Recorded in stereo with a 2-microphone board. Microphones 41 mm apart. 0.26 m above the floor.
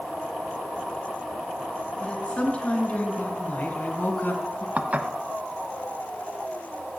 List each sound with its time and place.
2.0 s a woman speaking: 30° left (ahead or behind), 3 m; by 4.7 s 55° left (ahead or behind), 2 m
4.8 s dishes clattering: 35° right (ahead or behind), 1.0 m